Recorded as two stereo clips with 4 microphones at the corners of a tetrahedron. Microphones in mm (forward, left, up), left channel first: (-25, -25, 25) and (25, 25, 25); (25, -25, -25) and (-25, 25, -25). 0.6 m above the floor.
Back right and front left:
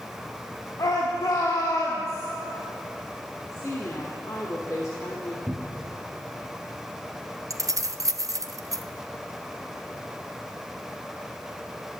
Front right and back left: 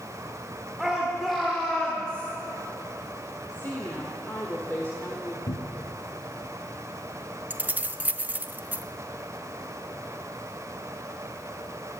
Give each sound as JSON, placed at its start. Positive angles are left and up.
{"t": 0.8, "sound": "a shout", "azimuth_deg": -140, "distance_m": 1.8}
{"t": 3.5, "sound": "a woman speaking", "azimuth_deg": -100, "distance_m": 1.3}
{"t": 5.5, "sound": "a cupboard door", "azimuth_deg": -35, "distance_m": 0.8}
{"t": 7.5, "sound": "keys jangling", "azimuth_deg": 75, "distance_m": 0.5}